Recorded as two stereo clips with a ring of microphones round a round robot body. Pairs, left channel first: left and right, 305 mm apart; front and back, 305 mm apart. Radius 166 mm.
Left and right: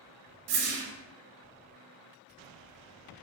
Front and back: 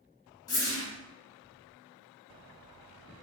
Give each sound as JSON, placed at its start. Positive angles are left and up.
{"t": 0.5, "sound": "a whoosh", "azimuth_deg": -80, "distance_m": 0.8}